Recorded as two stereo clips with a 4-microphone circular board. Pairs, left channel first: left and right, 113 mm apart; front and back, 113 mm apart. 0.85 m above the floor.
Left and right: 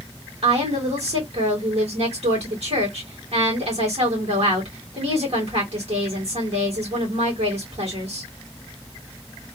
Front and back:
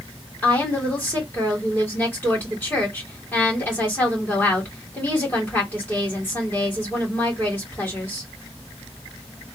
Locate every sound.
0.4 s a woman speaking: 70° right, 2.5 m